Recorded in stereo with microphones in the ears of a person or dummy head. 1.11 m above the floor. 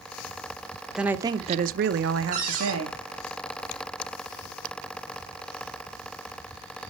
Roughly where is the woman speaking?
Centre.